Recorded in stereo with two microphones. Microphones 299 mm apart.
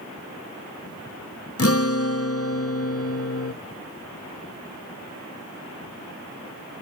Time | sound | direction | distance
1.6 | a guitar | 45° left (ahead or behind) | 0.7 m